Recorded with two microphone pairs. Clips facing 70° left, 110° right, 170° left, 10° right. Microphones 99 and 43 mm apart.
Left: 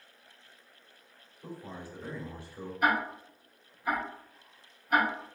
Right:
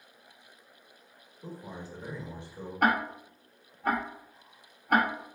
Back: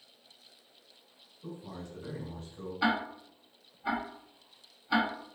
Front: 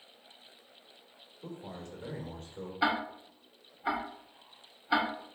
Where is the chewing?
I don't hear chewing.